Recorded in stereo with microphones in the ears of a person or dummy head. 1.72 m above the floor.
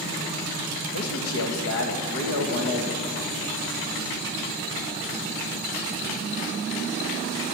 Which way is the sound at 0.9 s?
70° left (ahead or behind).